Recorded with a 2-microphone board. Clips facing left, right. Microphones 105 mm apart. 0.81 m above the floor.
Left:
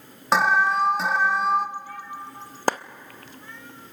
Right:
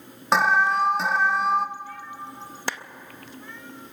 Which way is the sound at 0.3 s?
Centre (ahead or behind).